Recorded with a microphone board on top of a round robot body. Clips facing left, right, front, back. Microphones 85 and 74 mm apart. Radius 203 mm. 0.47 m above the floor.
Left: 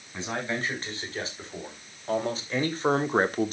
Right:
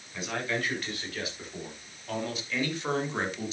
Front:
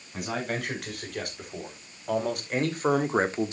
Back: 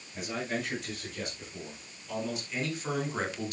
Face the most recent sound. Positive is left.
turn(degrees=60)